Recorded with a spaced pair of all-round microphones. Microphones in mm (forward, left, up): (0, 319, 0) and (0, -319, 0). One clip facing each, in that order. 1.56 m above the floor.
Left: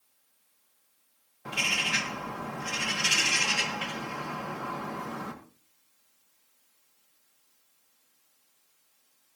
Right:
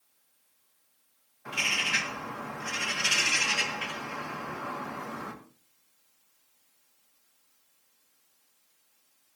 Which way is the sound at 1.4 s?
65° left (ahead or behind).